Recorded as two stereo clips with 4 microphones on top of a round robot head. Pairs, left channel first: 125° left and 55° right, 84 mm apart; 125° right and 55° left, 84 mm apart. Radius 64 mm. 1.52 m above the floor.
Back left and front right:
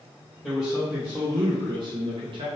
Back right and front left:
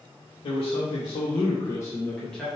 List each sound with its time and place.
0.4 s a man speaking: 145° right, 1.0 m; by 2.5 s 35° right, 0.9 m